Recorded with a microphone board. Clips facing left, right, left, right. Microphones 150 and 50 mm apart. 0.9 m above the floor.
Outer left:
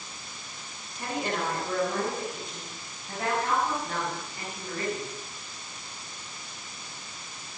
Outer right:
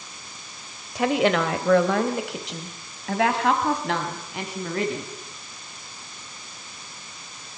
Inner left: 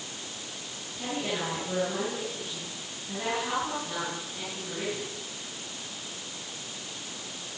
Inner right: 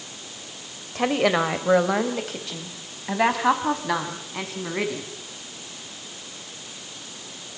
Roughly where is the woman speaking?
Right.